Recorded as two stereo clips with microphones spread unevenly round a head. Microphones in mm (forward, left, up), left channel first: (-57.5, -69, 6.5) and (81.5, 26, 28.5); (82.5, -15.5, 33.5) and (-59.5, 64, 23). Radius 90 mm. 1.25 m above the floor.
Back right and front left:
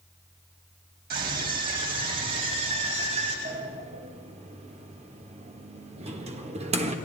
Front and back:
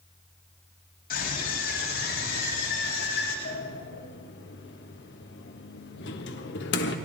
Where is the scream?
Straight ahead, 9 m; by 3.4 s 10° right, 9.5 m.